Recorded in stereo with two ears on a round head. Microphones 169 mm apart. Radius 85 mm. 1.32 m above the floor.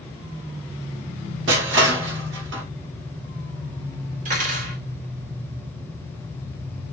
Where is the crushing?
70° right (ahead or behind), 1.1 m.